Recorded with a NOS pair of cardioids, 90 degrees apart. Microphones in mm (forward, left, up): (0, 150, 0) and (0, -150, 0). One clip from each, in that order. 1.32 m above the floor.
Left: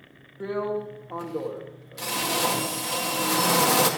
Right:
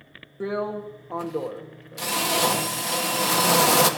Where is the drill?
20° right, 1.6 m.